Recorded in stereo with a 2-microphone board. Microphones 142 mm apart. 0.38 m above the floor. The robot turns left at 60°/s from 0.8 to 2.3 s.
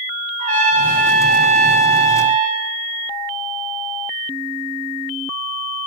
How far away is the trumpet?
About 0.6 m.